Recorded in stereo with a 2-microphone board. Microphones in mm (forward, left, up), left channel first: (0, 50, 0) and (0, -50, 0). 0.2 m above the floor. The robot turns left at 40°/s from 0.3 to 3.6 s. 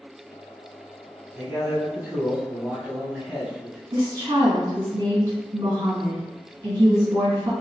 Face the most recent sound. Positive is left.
turn(degrees=-35)  # may be behind; listen again after turning